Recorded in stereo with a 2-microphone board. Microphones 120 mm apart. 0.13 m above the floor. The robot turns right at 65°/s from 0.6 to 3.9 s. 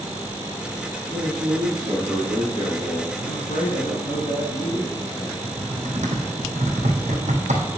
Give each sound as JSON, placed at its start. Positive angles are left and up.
{"t": 1.1, "sound": "a man speaking", "azimuth_deg": -55, "distance_m": 4.0}
{"t": 3.2, "sound": "a man speaking", "azimuth_deg": 65, "distance_m": 4.5}
{"t": 5.4, "sound": "typing on a keyboard", "side_deg": -80, "distance_m": 1.9}